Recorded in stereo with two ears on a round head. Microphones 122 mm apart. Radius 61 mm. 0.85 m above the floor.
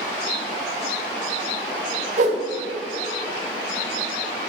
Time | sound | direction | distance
2.2 | a whoosh | 50° right (ahead or behind) | 1.6 m